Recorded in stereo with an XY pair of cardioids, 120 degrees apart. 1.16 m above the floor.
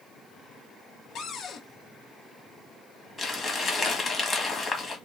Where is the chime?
I don't hear a chime.